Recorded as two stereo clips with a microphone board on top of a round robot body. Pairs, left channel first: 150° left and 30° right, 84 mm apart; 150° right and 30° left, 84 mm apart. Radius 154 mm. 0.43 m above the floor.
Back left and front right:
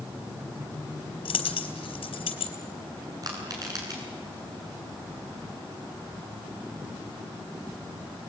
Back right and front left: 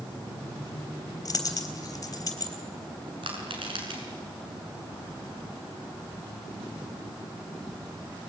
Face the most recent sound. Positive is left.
turn(degrees=15)